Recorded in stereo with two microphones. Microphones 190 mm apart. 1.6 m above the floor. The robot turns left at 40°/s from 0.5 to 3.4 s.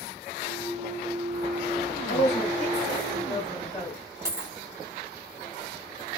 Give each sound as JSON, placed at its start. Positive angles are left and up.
{"t": 2.1, "sound": "a woman speaking", "azimuth_deg": 70, "distance_m": 2.0}
{"t": 4.2, "sound": "a dropped coin", "side_deg": -15, "distance_m": 2.0}